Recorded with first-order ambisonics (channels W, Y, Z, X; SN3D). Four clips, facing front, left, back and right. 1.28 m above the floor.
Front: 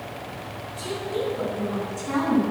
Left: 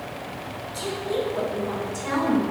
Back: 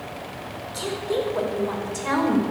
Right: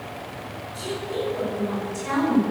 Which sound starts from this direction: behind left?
A woman speaking, at 0.7 s.